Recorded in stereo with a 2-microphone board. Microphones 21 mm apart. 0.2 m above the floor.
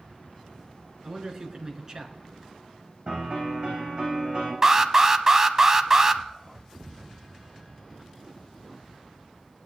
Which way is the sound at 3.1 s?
35° right (ahead or behind).